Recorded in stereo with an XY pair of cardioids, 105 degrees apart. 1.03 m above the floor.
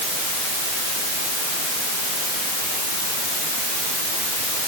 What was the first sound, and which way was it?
Only background noise.